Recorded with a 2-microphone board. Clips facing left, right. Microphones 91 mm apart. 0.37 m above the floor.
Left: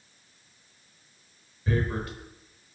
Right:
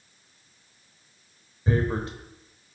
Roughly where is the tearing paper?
Right.